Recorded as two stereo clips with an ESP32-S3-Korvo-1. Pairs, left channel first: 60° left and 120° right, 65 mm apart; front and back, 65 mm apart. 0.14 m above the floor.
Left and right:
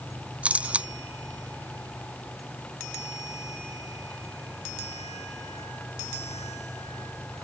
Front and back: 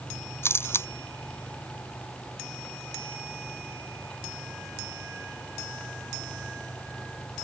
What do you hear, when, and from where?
0.4 s a camera shutter: 50° right